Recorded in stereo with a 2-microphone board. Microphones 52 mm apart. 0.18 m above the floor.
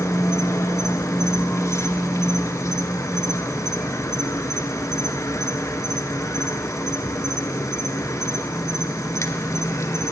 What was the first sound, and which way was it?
An insect, 70° left (ahead or behind).